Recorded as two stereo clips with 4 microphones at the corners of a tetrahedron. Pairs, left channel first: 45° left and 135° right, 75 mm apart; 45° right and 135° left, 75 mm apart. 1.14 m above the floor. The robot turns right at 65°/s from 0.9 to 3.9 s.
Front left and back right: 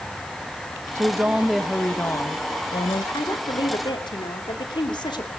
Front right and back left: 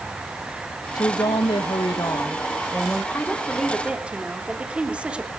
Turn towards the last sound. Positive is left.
turn(degrees=60)